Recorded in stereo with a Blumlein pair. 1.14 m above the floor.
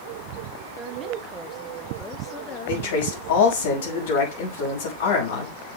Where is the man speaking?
55° left, 5 m.